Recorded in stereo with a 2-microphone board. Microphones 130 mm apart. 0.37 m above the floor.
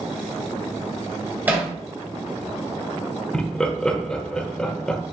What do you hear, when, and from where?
1.5 s hammering: 15° right (ahead or behind), 1.8 m
3.3 s laughter: 5° left (ahead or behind), 1.0 m